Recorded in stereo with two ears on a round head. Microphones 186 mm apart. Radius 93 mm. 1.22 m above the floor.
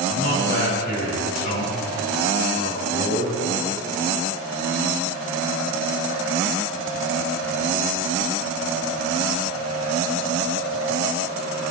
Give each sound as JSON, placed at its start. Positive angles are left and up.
{"t": 0.1, "sound": "a man speaking", "side_deg": 50, "distance_m": 5.5}